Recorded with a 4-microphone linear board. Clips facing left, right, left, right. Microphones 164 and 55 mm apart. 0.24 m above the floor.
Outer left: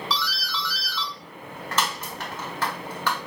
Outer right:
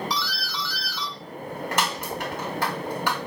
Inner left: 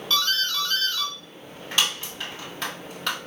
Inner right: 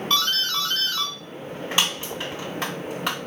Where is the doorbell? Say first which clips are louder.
Even, even; 15° right (ahead or behind), 1.6 m.